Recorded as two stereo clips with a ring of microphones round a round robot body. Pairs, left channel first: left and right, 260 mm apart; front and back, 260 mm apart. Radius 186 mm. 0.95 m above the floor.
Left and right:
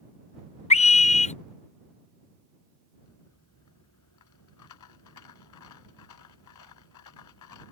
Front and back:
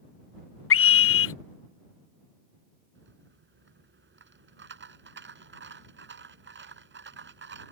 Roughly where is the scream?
Ahead left.